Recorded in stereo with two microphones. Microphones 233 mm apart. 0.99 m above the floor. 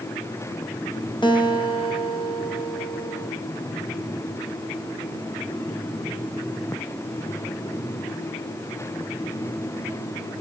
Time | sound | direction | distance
1.2 | a guitar | 20° left (ahead or behind) | 0.8 m